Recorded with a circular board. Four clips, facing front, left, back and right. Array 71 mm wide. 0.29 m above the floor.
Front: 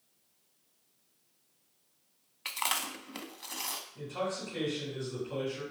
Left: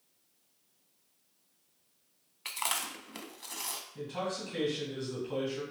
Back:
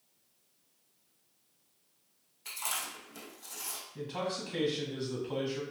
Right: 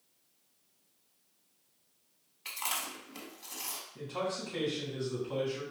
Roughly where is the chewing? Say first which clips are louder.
Left 2 dB, front 5 dB; ahead left.